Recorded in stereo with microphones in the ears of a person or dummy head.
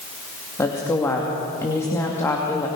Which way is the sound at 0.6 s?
15° left (ahead or behind).